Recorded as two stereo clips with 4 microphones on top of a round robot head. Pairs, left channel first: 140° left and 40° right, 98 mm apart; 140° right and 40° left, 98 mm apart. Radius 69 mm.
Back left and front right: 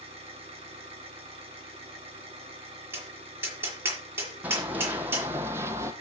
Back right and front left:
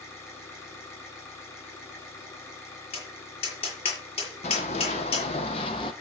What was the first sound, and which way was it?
An engine running, 70° right.